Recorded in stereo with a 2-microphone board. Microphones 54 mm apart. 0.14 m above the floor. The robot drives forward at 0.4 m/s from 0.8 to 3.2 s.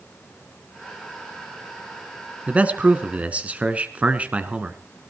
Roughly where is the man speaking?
Right.